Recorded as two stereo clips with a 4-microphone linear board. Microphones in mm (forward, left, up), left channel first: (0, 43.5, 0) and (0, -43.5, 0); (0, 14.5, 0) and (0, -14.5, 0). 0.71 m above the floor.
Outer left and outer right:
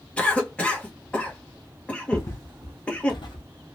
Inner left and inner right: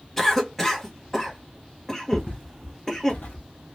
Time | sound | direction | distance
0.2 | a cough | 15° left (ahead or behind) | 1.2 m
2.1 | footsteps | 40° left (ahead or behind) | 2 m